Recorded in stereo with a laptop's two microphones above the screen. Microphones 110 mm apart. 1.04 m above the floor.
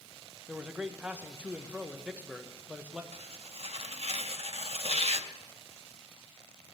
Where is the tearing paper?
60° right (ahead or behind), 0.6 m.